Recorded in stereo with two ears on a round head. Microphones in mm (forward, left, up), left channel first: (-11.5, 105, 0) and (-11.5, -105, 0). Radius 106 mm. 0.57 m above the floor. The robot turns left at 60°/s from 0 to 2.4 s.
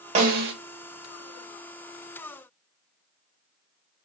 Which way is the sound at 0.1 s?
30° right (ahead or behind).